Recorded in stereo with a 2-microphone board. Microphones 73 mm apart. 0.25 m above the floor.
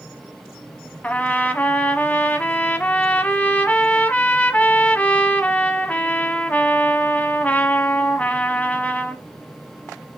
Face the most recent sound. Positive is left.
turn(degrees=20)  # may be behind; listen again after turning